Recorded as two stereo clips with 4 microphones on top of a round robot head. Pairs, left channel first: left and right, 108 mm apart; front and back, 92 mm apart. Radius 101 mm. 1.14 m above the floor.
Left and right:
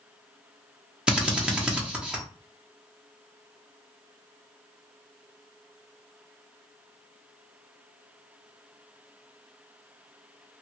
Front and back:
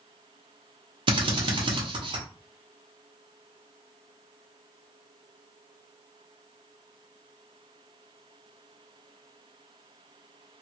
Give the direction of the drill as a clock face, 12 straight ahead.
6 o'clock.